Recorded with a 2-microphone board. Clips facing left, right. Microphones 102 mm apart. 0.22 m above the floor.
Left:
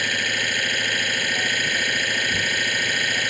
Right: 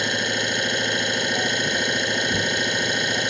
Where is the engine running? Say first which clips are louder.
Right 2 dB; 25° right (ahead or behind).